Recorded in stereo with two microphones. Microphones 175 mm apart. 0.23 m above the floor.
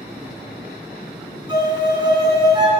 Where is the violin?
25° right (ahead or behind), 1.6 m.